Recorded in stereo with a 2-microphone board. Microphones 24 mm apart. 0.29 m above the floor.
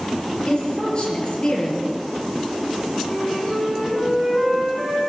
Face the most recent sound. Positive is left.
turn(degrees=0)  # may be behind; listen again after turning